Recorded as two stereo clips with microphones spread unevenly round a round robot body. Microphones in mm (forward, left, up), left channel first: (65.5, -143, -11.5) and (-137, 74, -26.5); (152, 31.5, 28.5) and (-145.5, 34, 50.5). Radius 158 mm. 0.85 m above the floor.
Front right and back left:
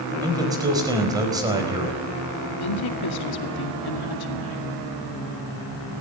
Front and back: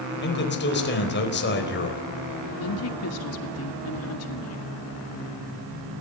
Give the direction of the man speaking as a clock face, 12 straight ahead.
10 o'clock.